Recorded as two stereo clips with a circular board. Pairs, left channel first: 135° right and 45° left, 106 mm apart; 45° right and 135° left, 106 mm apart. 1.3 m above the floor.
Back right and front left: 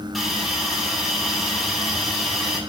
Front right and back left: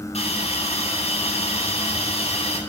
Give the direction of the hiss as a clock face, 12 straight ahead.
1 o'clock.